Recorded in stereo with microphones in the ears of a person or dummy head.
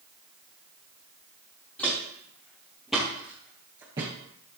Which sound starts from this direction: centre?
Footsteps, at 1.8 s.